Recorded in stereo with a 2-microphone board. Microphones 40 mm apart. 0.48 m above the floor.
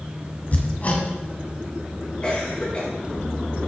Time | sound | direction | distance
0.5 | hammering | 40° left (ahead or behind) | 1.7 m
2.2 | a cough | 30° left (ahead or behind) | 5 m